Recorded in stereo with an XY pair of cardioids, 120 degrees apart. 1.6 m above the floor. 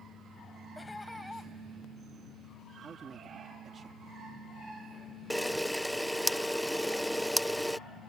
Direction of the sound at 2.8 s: 40° right.